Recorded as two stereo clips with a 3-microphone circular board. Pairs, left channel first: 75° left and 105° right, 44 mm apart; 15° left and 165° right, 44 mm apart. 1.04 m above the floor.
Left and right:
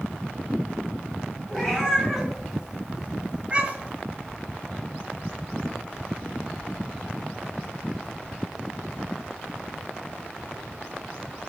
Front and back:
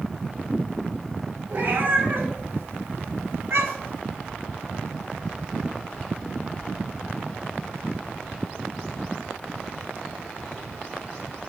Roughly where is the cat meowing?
Behind left.